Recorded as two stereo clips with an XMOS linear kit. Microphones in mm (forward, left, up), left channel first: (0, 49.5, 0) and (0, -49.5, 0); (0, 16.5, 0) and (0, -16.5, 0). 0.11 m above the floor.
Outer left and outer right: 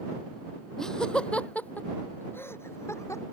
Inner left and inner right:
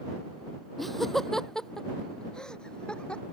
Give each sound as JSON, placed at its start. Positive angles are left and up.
{"t": 0.8, "sound": "laughter", "side_deg": 5}